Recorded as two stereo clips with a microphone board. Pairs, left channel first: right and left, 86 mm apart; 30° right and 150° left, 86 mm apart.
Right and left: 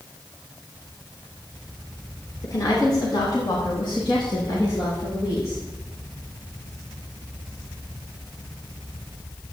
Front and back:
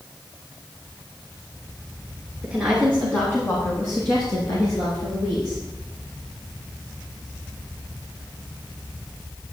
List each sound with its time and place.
2.4 s a woman speaking: 135° right, 2 m; by 5.6 s 45° right, 4.5 m